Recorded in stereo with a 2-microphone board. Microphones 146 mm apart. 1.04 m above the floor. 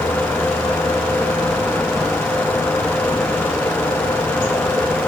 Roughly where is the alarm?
I don't hear an alarm.